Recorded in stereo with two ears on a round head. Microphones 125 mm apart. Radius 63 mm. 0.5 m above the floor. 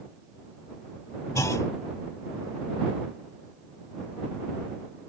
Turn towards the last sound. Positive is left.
turn(degrees=25)  # may be behind; listen again after turning